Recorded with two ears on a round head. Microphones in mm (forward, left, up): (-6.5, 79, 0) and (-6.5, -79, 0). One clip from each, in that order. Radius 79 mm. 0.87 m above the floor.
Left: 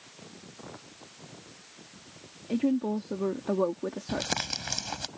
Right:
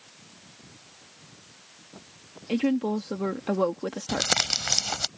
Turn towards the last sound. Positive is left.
turn(degrees=-35)  # may be behind; listen again after turning